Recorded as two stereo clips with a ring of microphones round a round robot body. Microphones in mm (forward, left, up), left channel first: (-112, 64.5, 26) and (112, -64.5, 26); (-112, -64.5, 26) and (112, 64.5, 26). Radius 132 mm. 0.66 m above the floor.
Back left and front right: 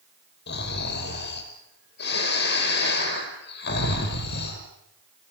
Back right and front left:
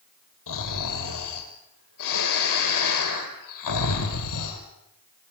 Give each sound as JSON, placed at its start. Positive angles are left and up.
{"t": 0.5, "sound": "snoring", "azimuth_deg": -160, "distance_m": 5.5}